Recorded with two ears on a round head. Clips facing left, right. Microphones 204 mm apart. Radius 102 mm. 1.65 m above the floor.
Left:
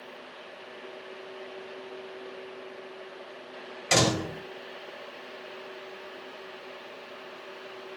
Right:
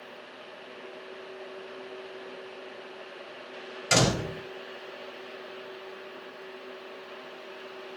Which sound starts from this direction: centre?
A door slam, at 3.9 s.